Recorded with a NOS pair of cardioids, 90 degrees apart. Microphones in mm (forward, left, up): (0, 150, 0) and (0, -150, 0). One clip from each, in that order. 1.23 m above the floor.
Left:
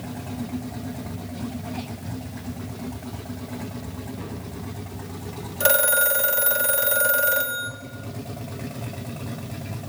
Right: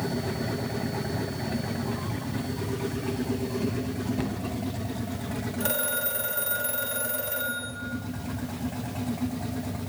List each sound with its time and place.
4.2 s a cupboard door: 65° right, 1.0 m
5.6 s a phone ringing: 45° left, 0.8 m